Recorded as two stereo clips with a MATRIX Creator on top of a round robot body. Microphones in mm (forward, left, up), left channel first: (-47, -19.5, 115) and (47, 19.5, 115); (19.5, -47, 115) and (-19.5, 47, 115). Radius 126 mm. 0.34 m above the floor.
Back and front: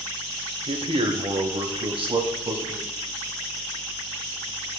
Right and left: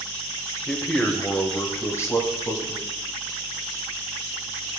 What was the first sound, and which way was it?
A man speaking, 20° left.